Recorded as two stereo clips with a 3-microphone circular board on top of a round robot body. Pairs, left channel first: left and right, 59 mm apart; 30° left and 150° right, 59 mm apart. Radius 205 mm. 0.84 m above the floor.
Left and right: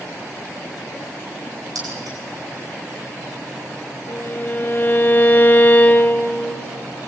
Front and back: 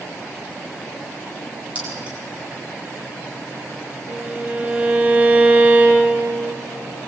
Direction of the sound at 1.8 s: 85° right.